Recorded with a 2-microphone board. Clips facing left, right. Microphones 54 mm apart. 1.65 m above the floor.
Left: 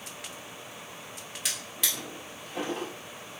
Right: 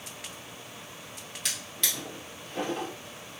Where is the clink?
I don't hear a clink.